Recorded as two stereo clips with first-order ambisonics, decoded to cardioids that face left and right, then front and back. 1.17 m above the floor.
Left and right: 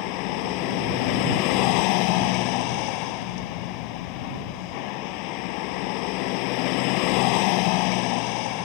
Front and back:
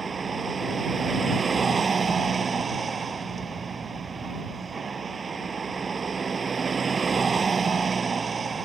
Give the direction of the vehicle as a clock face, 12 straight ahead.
8 o'clock.